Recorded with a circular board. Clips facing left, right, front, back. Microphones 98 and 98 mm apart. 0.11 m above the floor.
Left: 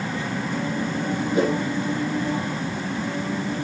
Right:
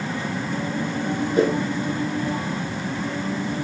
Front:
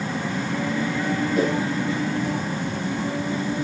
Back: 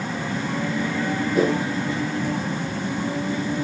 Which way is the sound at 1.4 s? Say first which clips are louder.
Right 2 dB, back 3 dB; 115° left.